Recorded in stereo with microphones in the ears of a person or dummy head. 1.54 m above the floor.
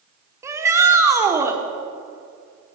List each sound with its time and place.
0.4 s a shout: 10° right (ahead or behind), 0.9 m